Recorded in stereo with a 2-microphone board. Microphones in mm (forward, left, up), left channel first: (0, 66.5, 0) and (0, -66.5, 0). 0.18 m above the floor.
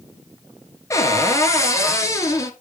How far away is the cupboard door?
About 1.8 m.